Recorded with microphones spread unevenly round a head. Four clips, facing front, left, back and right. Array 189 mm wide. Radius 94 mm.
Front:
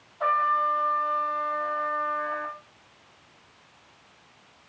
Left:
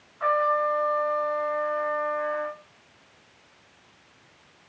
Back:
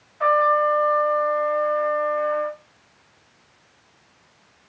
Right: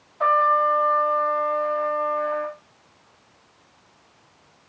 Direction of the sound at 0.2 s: 100° right.